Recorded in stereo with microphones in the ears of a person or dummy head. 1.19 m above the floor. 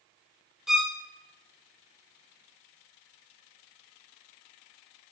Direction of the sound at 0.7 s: Centre (ahead or behind).